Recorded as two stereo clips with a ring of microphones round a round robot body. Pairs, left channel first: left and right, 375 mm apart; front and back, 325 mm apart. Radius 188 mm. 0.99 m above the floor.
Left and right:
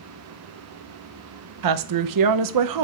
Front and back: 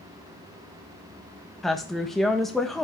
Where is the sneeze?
I don't hear a sneeze.